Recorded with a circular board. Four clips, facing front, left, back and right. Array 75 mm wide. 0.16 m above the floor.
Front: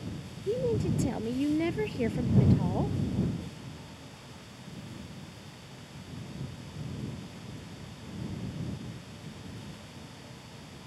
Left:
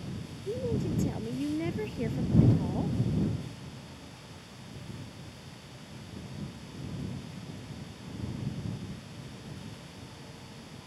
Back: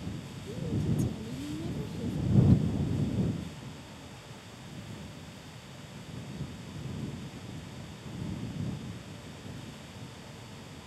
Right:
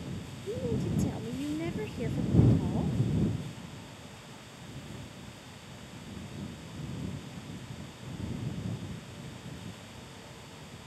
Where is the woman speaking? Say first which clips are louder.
Left 1 dB, front 6 dB; 5° left.